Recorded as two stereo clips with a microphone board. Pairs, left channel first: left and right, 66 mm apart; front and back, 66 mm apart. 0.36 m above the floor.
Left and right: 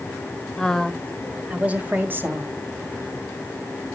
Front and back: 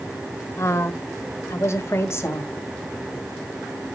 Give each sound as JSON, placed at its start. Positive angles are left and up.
{"t": 0.6, "sound": "a woman speaking", "azimuth_deg": 15, "distance_m": 1.5}